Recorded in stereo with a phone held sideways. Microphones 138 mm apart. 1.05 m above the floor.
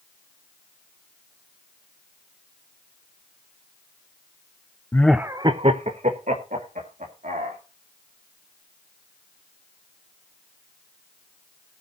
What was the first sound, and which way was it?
Laughter, 20° left (ahead or behind).